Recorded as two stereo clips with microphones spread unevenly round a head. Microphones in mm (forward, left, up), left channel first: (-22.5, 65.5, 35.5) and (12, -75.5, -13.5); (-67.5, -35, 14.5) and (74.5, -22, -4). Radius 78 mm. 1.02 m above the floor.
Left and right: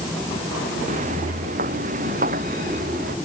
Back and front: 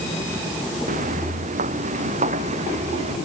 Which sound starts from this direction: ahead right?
Footsteps, at 0.9 s.